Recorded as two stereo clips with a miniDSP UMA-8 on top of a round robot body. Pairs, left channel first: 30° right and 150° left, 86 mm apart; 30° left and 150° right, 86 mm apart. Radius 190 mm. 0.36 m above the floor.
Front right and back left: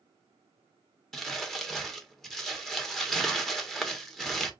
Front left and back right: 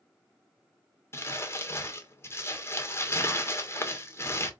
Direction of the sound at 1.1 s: 55° left.